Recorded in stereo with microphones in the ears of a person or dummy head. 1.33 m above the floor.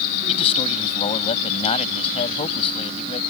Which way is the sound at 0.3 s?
30° left (ahead or behind).